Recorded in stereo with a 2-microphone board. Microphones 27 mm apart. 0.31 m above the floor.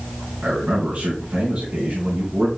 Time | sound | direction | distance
0.4 | a man speaking | 65° right (ahead or behind) | 3.5 m